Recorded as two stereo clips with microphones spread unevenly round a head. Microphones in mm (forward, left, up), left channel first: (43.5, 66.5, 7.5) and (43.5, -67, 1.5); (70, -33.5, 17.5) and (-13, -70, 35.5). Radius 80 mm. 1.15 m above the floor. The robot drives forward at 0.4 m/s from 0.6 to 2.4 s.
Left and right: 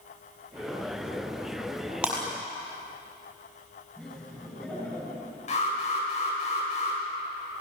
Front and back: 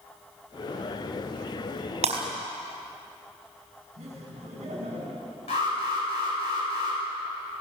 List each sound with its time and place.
2.0 s breaking glass: 175° right, 4.5 m
4.0 s laughter: 170° left, 7 m
5.5 s an alarm: 55° left, 7.5 m